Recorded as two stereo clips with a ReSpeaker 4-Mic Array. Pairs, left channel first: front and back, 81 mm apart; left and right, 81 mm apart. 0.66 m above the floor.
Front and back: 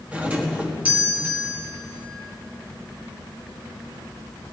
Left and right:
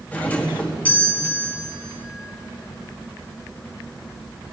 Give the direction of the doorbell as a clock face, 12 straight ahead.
8 o'clock.